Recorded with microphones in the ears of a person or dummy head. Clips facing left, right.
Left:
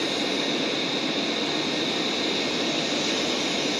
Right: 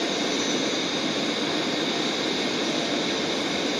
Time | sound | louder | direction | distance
0.0 | a fan | right 1 dB | 5° right (ahead or behind) | ?